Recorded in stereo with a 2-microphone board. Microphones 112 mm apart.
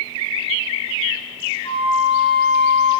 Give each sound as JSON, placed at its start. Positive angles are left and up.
{"t": 1.6, "sound": "a flute", "side_deg": 75, "distance_m": 8.0}